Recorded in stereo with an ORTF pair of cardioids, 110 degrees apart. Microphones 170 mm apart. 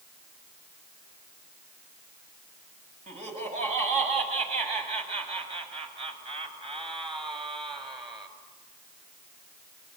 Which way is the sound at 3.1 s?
45° right.